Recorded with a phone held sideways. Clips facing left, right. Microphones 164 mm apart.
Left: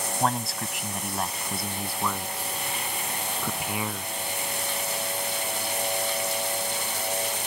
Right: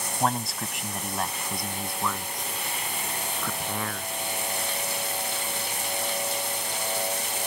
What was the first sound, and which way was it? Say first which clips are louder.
A man speaking: right 1 dB; centre (ahead or behind).